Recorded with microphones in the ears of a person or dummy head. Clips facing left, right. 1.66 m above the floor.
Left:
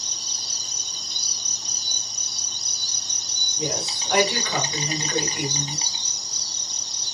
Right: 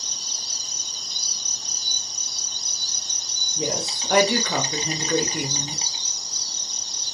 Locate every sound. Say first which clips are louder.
0.0 s an insect: even; 60° left (ahead or behind), 0.7 m
3.6 s a woman speaking: right 2 dB; 40° right (ahead or behind), 0.9 m